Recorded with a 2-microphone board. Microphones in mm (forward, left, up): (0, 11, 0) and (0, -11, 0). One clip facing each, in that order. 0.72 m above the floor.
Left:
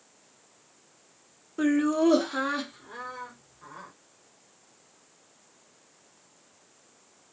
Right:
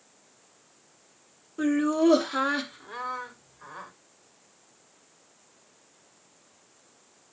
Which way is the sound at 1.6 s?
15° left (ahead or behind).